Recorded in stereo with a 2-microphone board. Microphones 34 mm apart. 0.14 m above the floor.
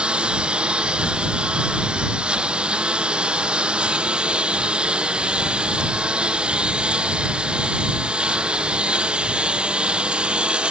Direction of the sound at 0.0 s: 30° right (ahead or behind).